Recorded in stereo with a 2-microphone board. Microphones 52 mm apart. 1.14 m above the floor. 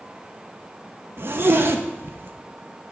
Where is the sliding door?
I don't hear a sliding door.